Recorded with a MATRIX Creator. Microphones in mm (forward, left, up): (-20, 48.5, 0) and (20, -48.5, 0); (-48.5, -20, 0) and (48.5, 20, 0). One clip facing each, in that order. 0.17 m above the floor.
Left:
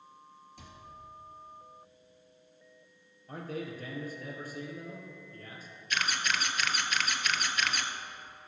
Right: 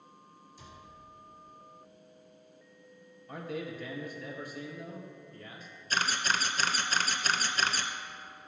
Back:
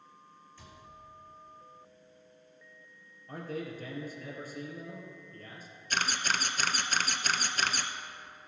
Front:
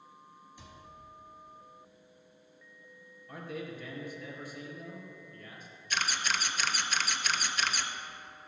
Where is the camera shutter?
120° right, 0.7 m.